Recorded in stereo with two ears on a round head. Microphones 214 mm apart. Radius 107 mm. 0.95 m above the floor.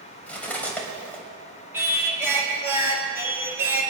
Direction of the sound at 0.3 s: 5° left (ahead or behind).